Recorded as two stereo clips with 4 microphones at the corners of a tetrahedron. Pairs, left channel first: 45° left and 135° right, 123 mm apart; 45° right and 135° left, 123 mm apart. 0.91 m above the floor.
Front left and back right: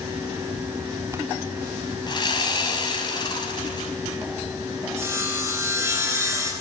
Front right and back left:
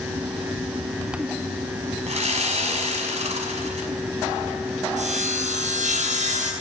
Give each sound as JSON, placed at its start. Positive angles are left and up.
{"t": 2.1, "sound": "sawing", "azimuth_deg": 100, "distance_m": 5.5}
{"t": 5.0, "sound": "sawing", "azimuth_deg": 155, "distance_m": 9.0}